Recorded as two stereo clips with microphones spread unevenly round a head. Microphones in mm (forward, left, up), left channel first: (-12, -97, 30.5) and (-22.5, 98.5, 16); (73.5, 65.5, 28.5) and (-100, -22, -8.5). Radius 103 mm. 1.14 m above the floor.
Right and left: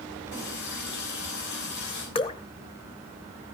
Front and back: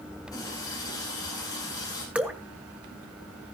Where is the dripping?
55° right, 1.0 m.